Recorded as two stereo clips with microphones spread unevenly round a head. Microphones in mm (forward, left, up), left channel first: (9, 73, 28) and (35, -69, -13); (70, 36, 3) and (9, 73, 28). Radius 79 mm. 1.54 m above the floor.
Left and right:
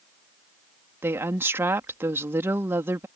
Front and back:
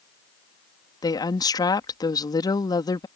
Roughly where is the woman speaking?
Ahead.